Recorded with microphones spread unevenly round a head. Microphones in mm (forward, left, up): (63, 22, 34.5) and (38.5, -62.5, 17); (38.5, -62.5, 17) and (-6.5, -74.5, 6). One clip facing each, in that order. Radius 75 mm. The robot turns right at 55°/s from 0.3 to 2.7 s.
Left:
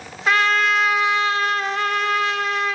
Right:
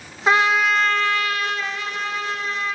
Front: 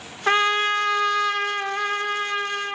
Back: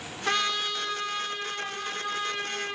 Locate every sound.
0.3 s a trumpet: 50° right, 0.9 m; by 2.8 s 85° left, 0.9 m